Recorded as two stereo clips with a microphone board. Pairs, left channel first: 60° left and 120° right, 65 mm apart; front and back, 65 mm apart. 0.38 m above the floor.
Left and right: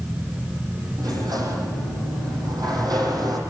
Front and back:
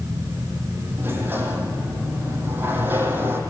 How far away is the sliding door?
About 5 m.